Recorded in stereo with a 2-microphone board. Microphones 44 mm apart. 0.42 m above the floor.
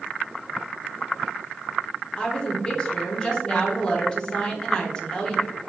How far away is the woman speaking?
About 0.8 m.